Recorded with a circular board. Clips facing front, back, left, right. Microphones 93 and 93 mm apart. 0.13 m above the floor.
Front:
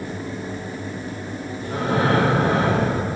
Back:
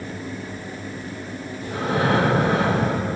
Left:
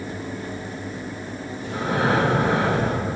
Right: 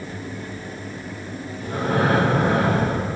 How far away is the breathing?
About 2.5 m.